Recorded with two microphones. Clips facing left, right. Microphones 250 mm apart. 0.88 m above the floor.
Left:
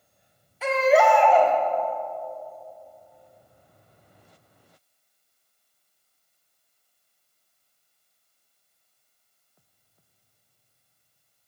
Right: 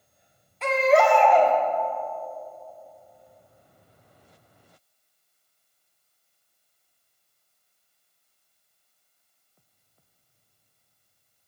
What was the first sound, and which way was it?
A baby crying, 5° left (ahead or behind).